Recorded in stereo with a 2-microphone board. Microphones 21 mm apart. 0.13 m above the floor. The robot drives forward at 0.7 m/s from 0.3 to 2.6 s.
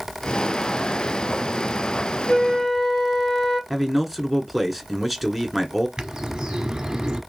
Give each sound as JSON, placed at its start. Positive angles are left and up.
{"t": 2.3, "sound": "a flute", "side_deg": 45, "distance_m": 1.8}
{"t": 3.7, "sound": "a man speaking", "side_deg": 0, "distance_m": 1.2}
{"t": 6.0, "sound": "a bird", "side_deg": -40, "distance_m": 1.7}